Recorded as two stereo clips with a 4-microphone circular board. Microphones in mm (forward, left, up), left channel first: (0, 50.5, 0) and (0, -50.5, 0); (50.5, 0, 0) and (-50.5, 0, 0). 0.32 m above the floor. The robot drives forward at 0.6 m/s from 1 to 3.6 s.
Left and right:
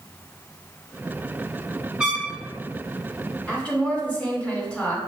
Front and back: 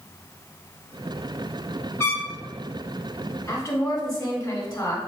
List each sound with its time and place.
2.0 s a trumpet: 15° right, 1.6 m; by 2.3 s 20° right, 1.6 m
3.5 s a woman speaking: 20° left, 1.3 m; by 5.0 s 25° left, 1.3 m